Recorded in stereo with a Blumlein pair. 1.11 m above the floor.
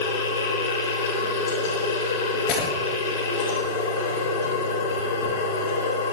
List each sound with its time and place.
0.0 s a machine running: 65° left, 5 m
2.5 s breaking glass: 40° left, 6 m